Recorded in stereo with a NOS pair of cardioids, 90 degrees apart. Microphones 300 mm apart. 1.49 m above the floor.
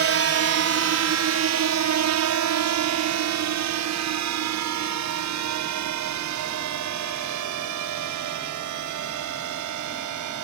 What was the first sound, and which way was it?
A drone, 50° right.